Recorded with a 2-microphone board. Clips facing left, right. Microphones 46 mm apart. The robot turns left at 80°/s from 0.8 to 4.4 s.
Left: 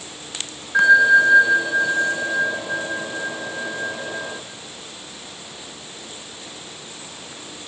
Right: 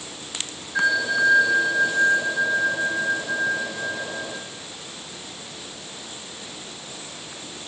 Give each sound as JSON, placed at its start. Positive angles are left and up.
{"t": 0.7, "sound": "a bell", "azimuth_deg": 75, "distance_m": 0.9}